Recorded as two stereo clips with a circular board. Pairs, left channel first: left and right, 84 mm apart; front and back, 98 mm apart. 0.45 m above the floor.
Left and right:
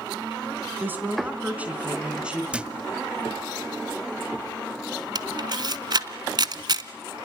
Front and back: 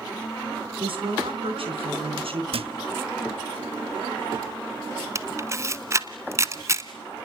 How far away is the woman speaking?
About 4 m.